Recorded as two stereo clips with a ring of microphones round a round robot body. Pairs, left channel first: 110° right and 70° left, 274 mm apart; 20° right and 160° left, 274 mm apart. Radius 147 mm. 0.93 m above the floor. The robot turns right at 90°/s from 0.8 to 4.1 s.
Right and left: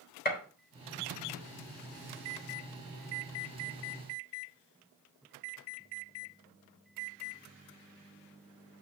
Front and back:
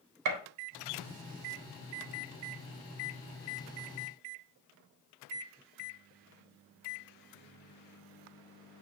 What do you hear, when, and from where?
0.2 s a gunshot: 170° right, 1.3 m